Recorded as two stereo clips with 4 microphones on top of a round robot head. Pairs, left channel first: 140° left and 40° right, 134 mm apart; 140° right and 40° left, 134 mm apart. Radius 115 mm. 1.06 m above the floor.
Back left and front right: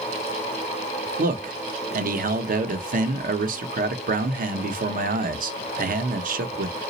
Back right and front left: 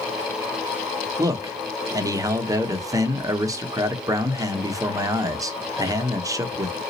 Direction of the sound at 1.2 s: 25° right.